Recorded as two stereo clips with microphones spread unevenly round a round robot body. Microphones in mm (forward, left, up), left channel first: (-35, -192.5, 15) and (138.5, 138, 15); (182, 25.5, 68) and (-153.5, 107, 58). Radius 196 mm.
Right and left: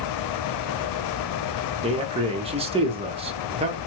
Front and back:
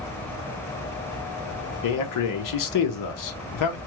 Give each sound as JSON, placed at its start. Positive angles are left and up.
{"t": 1.8, "sound": "a man speaking", "azimuth_deg": -10, "distance_m": 0.8}